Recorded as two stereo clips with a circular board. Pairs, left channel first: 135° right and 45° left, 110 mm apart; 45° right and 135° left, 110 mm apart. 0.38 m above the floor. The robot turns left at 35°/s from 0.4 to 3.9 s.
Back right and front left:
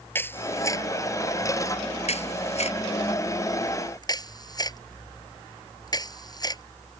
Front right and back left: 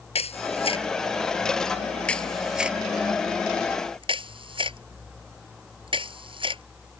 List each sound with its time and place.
0.1 s a camera shutter: 65° right; by 6.6 s 170° left